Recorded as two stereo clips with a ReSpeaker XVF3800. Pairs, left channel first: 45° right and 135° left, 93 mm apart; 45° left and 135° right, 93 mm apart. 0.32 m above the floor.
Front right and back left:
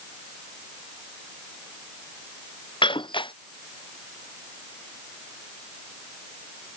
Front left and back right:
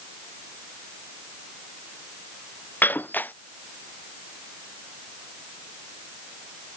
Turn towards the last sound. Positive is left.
turn(degrees=-25)